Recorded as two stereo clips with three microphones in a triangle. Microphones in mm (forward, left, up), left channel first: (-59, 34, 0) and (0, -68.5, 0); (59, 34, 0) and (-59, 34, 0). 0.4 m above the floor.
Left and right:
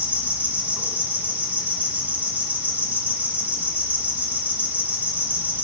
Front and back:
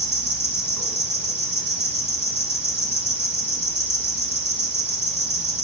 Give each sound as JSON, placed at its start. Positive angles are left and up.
{"t": 0.0, "sound": "an insect", "azimuth_deg": 15, "distance_m": 1.5}